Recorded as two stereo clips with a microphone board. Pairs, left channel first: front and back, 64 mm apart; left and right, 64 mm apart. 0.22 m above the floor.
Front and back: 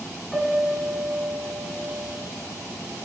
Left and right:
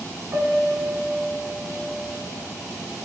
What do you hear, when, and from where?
0.3 s a piano: 100° right, 0.7 m